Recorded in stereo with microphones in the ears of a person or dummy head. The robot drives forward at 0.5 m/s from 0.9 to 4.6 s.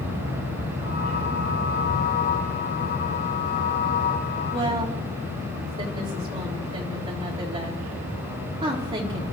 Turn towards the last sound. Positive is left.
turn(degrees=-25)  # may be behind; listen again after turning